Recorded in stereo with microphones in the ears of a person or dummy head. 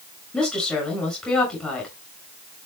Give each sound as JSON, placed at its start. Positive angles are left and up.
{"t": 0.3, "sound": "a woman speaking", "side_deg": 0, "distance_m": 7.5}